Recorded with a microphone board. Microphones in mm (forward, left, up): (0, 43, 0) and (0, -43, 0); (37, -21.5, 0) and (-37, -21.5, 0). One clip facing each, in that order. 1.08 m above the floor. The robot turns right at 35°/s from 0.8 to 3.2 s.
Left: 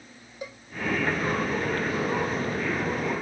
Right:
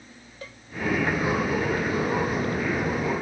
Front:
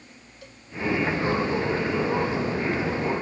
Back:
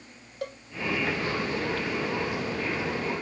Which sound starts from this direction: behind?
A cowbell, at 0.4 s.